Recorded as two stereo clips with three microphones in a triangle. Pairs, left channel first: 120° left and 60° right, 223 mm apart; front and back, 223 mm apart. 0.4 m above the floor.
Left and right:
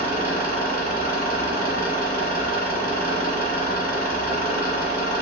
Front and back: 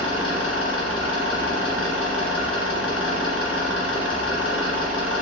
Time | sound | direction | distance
0.0 | an engine running | 170° left | 1.3 m